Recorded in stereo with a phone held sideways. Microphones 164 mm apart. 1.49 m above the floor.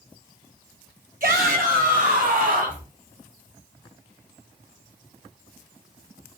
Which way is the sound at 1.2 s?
60° right (ahead or behind).